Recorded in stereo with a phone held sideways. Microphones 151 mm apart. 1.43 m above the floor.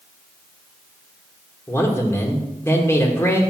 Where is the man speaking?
15° left (ahead or behind), 1.4 m.